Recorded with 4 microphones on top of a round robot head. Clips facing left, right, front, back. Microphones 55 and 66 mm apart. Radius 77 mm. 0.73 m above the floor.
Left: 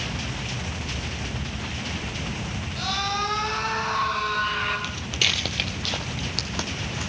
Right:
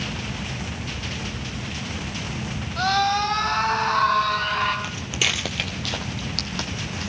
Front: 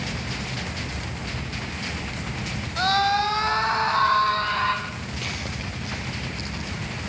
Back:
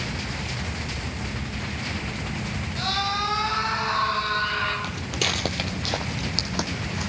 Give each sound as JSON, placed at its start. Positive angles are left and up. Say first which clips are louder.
{"t": 2.8, "sound": "a scream", "louder": "right 7 dB, front 6 dB", "azimuth_deg": -40, "distance_m": 5.5}
{"t": 4.8, "sound": "footsteps", "louder": "right 1 dB, back 4 dB", "azimuth_deg": -145, "distance_m": 0.8}